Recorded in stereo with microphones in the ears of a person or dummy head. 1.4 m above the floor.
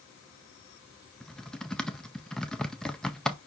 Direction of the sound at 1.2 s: Centre (ahead or behind).